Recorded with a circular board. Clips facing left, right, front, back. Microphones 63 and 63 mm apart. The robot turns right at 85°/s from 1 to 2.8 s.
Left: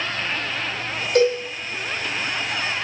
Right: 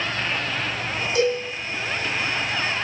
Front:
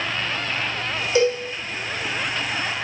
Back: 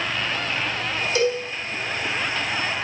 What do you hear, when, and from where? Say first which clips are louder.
1.1 s a cowbell: left 4 dB, front 3 dB; 60° left, 4.5 m; by 1.4 s 80° left, 4.5 m